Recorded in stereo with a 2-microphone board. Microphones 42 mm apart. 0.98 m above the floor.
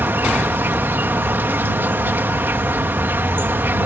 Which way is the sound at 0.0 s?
60° right (ahead or behind).